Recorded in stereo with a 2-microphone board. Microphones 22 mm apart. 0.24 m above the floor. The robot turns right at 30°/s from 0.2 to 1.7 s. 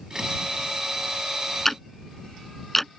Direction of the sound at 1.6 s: 10° left (ahead or behind).